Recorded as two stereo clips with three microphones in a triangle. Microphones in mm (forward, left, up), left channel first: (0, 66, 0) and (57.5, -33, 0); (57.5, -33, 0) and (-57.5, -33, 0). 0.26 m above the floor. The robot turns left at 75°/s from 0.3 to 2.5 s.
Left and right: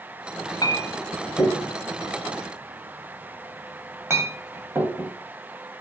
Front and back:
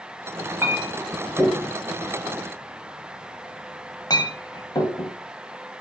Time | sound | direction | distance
0.6 | a clink | 135° left | 0.8 m